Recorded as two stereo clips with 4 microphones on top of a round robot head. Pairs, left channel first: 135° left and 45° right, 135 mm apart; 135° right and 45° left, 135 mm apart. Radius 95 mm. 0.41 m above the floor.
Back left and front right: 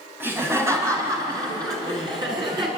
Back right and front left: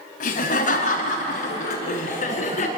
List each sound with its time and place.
0.2 s laughter: 115° right, 3.5 m; by 2.7 s 100° right, 7 m